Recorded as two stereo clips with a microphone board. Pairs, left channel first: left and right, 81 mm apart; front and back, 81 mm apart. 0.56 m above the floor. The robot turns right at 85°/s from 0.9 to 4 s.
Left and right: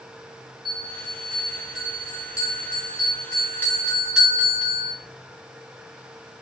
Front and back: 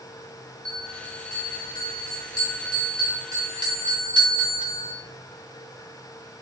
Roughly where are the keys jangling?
No keys jangling in this recording.